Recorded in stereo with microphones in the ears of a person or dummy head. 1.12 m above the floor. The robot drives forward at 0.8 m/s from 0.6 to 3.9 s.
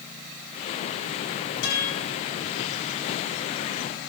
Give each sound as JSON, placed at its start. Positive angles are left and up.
{"t": 1.6, "sound": "a guitar", "side_deg": 65, "distance_m": 8.5}